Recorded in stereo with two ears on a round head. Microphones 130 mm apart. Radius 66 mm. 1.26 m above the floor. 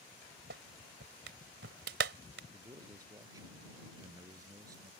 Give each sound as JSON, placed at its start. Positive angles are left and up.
{"t": 0.5, "sound": "a clap", "side_deg": -85}
{"t": 2.5, "sound": "a man speaking", "side_deg": -25}